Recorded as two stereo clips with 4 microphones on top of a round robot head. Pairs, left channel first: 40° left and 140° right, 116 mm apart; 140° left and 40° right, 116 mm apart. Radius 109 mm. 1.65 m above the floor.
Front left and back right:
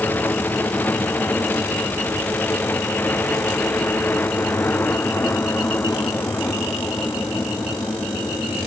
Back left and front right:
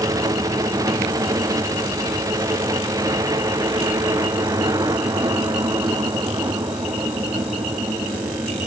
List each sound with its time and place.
0.0 s a helicopter: 20° right